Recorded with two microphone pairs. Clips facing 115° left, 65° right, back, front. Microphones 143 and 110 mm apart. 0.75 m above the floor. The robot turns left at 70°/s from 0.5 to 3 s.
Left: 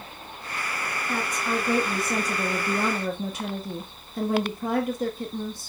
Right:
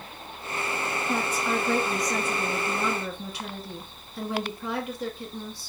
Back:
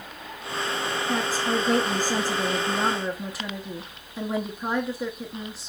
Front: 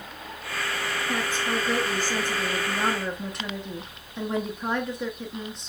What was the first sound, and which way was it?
A woman speaking, 125° right.